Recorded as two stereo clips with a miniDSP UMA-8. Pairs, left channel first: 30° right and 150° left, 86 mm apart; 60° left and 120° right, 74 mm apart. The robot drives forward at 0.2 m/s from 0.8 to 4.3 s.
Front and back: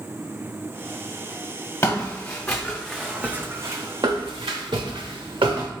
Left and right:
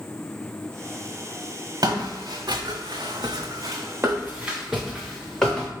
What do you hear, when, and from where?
1.8 s footsteps: 85° right, 1.2 m; by 5.7 s 140° left, 1.3 m